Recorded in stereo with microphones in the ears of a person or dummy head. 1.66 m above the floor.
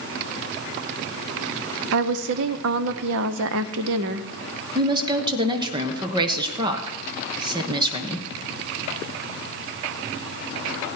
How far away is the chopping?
No chopping in this recording.